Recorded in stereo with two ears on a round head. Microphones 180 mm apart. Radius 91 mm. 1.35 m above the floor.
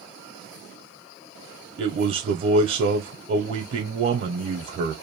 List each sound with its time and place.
1.8 s a man speaking: 40° right (ahead or behind), 0.5 m